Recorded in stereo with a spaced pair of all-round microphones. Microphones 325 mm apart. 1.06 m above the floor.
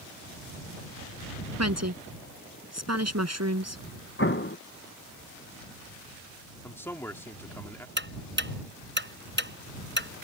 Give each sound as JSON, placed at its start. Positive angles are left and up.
{"t": 1.6, "sound": "a woman speaking", "side_deg": -50}
{"t": 4.2, "sound": "an explosion", "side_deg": 35}
{"t": 6.6, "sound": "a man speaking", "side_deg": 5}
{"t": 8.0, "sound": "ticking", "side_deg": -35}